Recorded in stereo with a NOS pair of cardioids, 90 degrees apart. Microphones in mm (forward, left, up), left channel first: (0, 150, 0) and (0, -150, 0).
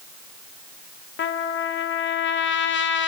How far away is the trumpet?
About 0.5 m.